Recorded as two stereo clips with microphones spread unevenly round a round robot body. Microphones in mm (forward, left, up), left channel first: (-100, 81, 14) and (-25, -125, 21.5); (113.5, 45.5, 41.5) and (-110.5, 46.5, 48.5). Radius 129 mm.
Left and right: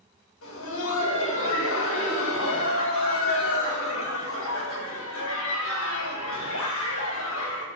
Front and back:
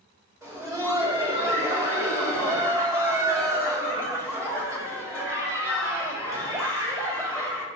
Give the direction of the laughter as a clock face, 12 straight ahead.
9 o'clock.